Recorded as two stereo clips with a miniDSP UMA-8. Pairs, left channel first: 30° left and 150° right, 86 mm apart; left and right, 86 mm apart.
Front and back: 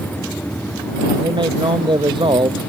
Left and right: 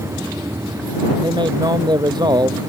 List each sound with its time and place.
1.2 s a man speaking: 125° right; by 2.6 s 130° right